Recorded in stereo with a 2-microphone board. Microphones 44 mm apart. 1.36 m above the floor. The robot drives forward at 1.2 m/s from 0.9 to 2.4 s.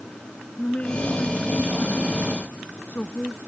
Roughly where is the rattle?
I don't hear a rattle.